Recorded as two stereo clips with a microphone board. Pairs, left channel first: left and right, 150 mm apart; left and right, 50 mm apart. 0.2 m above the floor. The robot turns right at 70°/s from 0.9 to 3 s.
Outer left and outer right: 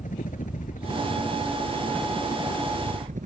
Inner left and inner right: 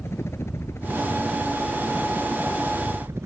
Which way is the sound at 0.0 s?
60° left (ahead or behind).